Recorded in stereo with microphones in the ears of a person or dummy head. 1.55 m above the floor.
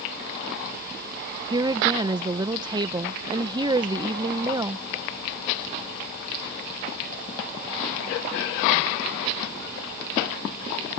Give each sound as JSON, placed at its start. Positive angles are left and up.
{"t": 1.5, "sound": "a woman speaking", "side_deg": -20}